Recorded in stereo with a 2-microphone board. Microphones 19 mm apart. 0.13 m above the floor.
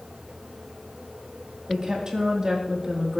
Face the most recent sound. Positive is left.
turn(degrees=-40)  # may be behind; listen again after turning